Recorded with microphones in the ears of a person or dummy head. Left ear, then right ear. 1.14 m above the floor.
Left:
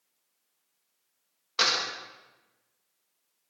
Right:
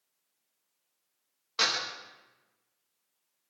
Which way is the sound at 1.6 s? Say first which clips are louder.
Left 3 dB; 10° left (ahead or behind).